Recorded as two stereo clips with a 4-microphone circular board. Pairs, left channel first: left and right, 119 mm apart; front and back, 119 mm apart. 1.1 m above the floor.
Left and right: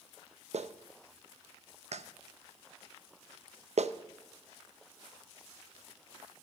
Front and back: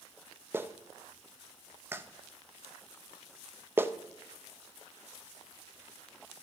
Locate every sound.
0.5 s a clap: 110° right, 0.5 m